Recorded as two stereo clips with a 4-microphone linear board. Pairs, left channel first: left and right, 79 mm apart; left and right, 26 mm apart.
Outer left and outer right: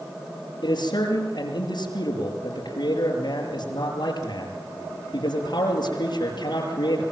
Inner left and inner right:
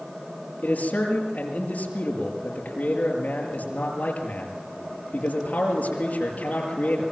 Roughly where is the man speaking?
Left.